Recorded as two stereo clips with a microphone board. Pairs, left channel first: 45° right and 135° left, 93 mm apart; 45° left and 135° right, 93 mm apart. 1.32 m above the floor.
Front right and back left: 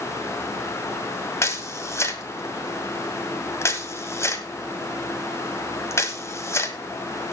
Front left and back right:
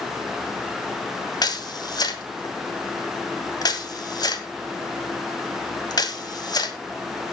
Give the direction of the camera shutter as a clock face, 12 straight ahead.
12 o'clock.